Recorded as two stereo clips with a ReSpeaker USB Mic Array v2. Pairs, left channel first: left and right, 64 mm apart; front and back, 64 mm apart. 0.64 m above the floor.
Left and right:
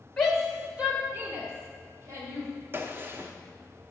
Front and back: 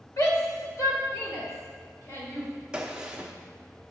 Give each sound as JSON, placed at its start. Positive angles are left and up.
{"t": 0.2, "sound": "a shout", "azimuth_deg": 10, "distance_m": 1.2}
{"t": 2.7, "sound": "a gunshot", "azimuth_deg": -110, "distance_m": 0.7}